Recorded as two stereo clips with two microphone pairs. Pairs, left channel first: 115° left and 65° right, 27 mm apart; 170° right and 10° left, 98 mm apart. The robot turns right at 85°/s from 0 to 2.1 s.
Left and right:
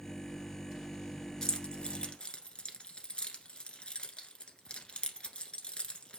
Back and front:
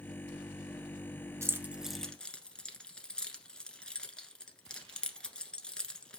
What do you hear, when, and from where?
1.4 s keys jangling: 55° left, 1.2 m; by 6.2 s 115° left, 1.2 m